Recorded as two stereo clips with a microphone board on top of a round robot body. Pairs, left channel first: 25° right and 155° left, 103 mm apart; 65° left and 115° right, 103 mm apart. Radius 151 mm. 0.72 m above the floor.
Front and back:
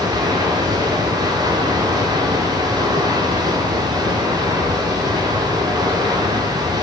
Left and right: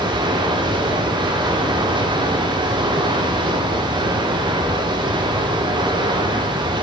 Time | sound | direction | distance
0.0 | running water | 155° right | 2.5 m